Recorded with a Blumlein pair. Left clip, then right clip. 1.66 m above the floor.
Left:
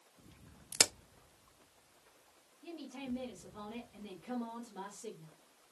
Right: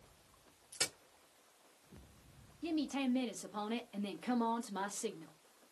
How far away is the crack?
About 0.5 m.